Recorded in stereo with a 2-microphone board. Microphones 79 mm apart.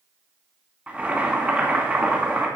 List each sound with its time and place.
0.9 s boiling: 15° right (ahead or behind), 2 m